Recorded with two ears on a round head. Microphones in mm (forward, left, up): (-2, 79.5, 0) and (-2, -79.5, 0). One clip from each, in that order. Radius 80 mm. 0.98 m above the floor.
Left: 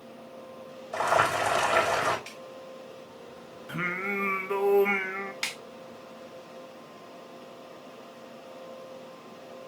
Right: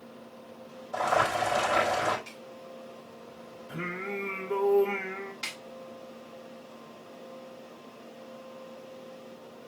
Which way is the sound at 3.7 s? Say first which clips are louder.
Left 5 dB; 50° left (ahead or behind).